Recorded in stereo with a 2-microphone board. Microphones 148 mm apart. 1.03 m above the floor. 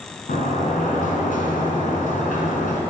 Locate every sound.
0.3 s a sliding door: 65° left (ahead or behind), 2.5 m